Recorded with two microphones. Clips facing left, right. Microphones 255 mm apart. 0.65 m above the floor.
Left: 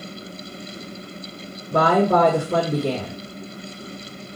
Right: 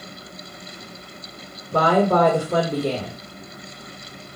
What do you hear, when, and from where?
1.7 s a woman speaking: 30° left (ahead or behind), 1.5 m